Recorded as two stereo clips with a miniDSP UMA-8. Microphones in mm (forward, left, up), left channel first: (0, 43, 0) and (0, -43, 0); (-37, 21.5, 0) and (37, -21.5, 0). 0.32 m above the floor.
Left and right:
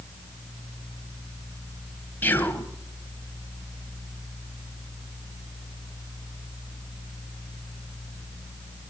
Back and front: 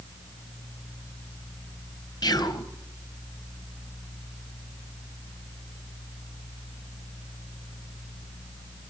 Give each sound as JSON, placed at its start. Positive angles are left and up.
{"t": 2.2, "sound": "whispering", "azimuth_deg": 150, "distance_m": 1.7}